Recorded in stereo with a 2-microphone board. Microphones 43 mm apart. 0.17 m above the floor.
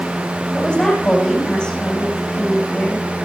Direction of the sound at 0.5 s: 15° left (ahead or behind).